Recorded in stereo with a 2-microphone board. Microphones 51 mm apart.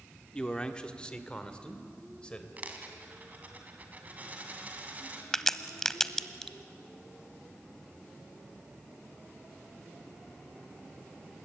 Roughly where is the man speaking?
Centre.